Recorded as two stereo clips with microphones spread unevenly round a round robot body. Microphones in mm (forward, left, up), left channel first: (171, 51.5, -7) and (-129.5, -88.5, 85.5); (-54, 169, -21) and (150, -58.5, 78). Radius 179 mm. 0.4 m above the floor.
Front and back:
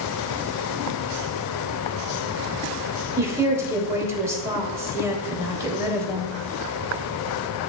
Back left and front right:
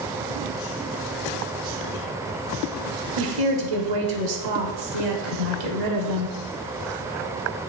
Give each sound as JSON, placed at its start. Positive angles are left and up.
{"t": 3.2, "sound": "a woman speaking", "azimuth_deg": -65, "distance_m": 1.5}